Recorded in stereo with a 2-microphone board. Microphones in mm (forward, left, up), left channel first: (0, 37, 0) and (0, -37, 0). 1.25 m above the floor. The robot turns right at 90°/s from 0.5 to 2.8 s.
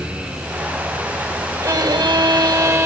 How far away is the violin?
About 2 m.